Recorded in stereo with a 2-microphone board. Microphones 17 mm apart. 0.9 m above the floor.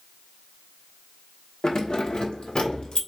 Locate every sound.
1.6 s keys jangling: 45° left (ahead or behind), 1.0 m; by 3.0 s 70° left (ahead or behind), 1.7 m